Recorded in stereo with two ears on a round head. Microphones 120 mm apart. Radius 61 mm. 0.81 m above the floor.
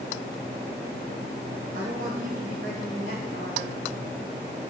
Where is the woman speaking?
60° right (ahead or behind), 4.5 m.